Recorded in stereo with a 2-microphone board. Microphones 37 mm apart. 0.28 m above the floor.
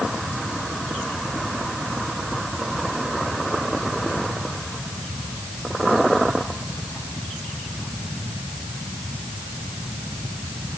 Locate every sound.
Only background noise.